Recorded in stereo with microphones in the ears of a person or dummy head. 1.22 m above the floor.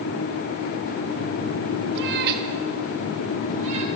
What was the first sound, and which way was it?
A cat meowing, 55° right (ahead or behind).